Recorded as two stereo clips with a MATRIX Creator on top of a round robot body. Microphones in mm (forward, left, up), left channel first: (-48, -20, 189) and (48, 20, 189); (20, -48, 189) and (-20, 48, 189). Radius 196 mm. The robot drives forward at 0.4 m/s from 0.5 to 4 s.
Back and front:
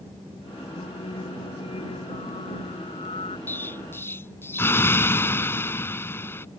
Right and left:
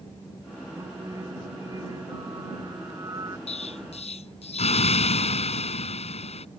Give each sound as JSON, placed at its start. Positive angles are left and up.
{"t": 0.8, "sound": "singing", "azimuth_deg": 170}
{"t": 3.5, "sound": "an explosion", "azimuth_deg": -85}